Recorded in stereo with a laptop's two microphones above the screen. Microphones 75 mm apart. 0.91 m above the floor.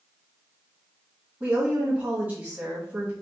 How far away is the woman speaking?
About 1.4 m.